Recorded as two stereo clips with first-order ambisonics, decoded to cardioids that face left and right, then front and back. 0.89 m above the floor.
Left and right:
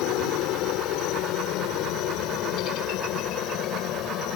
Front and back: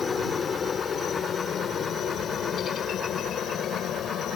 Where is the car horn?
No car horn in this recording.